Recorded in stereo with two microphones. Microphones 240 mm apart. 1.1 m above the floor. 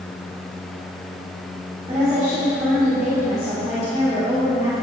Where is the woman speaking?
15° right (ahead or behind), 2 m.